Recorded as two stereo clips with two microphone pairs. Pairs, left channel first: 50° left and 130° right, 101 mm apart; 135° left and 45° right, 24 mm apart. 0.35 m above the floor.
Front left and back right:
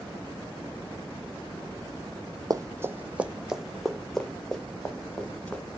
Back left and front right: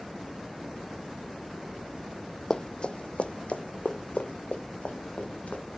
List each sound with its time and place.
2.5 s running footsteps: 170° right, 0.5 m; by 5.6 s 130° left, 2 m